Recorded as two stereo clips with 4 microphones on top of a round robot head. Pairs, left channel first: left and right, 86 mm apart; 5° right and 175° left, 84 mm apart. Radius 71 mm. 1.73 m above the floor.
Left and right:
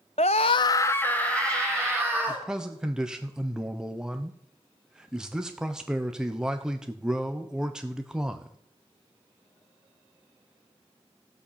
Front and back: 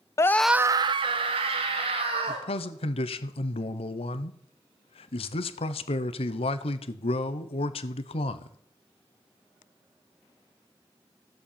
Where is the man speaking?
5° right, 1.0 m.